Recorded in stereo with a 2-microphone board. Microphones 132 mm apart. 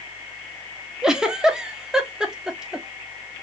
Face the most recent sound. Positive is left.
turn(degrees=-5)  # may be behind; listen again after turning